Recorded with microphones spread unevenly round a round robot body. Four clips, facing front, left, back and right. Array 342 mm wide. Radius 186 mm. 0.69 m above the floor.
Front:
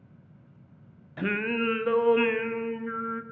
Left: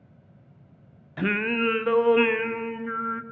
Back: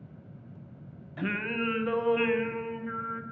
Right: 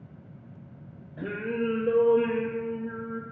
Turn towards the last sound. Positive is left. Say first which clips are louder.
# left 4 dB, front 4 dB
turn(degrees=80)